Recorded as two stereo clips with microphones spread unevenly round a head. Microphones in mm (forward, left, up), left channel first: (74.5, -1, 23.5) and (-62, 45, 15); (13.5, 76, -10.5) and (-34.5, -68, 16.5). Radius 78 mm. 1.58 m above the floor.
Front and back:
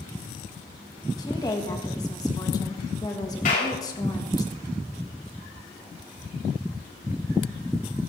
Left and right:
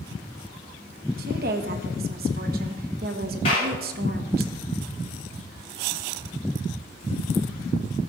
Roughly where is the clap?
Ahead.